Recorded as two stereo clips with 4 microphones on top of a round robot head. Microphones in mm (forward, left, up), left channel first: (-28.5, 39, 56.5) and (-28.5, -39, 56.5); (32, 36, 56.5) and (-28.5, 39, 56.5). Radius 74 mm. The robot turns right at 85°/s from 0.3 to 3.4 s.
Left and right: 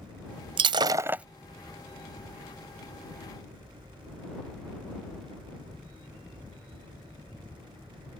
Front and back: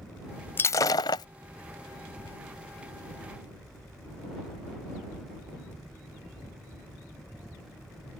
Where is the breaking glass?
65° right; by 1.2 s 10° right.